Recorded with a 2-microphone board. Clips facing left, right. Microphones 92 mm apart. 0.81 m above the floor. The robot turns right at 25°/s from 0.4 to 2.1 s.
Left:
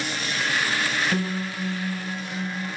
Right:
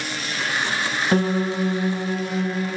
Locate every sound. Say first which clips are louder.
1.1 s a piano: right 7 dB; 40° right (ahead or behind), 0.8 m; by 2.8 s 45° right (ahead or behind), 0.8 m